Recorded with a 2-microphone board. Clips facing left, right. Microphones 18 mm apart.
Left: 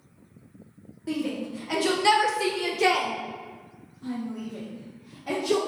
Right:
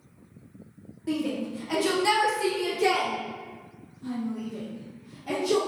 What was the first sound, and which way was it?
A shout, centre (ahead or behind).